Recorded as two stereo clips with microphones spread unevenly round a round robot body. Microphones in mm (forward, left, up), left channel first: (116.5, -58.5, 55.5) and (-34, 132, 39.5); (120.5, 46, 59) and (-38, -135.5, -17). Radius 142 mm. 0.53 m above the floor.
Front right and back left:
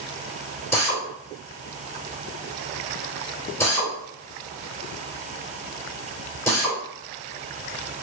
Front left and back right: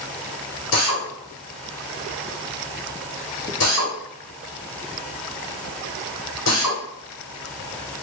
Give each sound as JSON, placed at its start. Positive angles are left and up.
{"t": 0.7, "sound": "a drill", "azimuth_deg": 30, "distance_m": 2.0}